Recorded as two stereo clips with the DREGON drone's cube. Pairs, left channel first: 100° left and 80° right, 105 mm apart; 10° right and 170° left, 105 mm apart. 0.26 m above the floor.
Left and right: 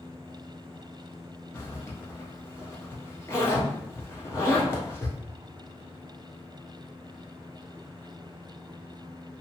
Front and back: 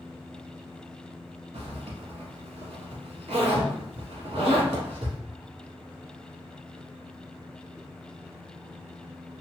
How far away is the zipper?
About 0.9 m.